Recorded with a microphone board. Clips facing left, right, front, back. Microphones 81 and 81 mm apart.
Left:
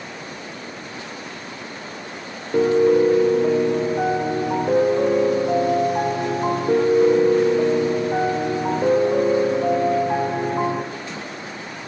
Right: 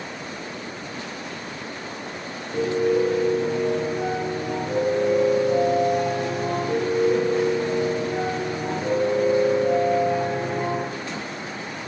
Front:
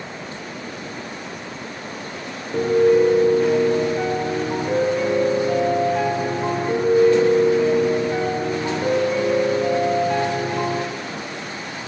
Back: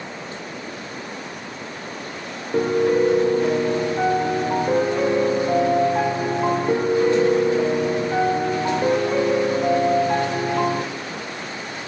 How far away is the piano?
About 2.5 m.